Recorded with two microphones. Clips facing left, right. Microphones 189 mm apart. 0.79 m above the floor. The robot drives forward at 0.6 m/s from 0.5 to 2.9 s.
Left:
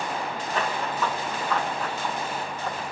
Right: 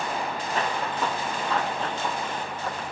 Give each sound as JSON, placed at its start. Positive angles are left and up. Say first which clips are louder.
{"t": 0.5, "sound": "running footsteps", "louder": "left 1 dB", "side_deg": -30, "distance_m": 2.0}